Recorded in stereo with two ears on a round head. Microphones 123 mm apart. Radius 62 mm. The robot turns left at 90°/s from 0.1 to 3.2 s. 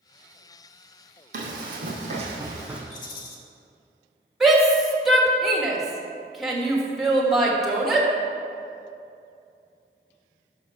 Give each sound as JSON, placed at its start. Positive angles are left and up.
{"t": 1.3, "sound": "running footsteps", "side_deg": -55, "distance_m": 2.5}
{"t": 2.9, "sound": "a rattle", "side_deg": 55, "distance_m": 1.3}
{"t": 4.4, "sound": "a shout", "side_deg": 0, "distance_m": 1.7}